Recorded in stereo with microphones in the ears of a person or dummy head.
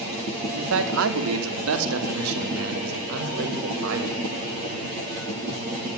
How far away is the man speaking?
About 3.5 m.